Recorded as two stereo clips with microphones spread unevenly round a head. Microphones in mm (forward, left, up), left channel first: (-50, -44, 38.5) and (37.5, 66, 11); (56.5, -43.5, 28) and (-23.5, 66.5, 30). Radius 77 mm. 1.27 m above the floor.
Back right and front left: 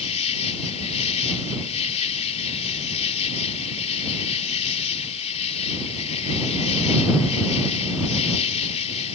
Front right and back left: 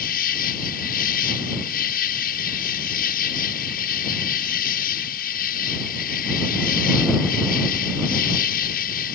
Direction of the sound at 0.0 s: 80° right.